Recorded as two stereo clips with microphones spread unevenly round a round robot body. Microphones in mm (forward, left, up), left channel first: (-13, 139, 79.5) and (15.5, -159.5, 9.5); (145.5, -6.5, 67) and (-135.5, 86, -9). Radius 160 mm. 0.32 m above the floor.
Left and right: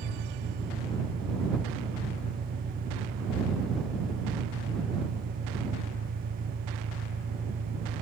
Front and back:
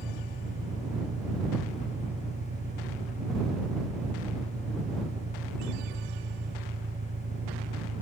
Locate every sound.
0.0 s an engine running: 135° right